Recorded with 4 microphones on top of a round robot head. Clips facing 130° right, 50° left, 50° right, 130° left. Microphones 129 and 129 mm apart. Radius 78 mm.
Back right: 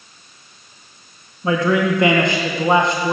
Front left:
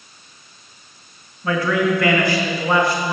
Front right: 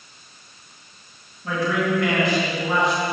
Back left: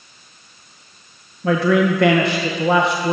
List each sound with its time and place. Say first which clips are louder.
1.4 s a man speaking: back right 2 dB, back left 7 dB; 160° left, 2 m